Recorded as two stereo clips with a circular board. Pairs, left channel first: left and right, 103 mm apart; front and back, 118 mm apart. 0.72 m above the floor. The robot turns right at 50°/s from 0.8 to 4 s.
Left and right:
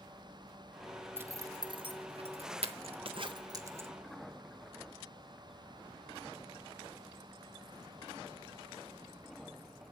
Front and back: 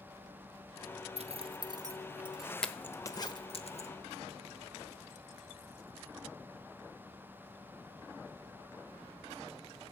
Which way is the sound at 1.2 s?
155° right.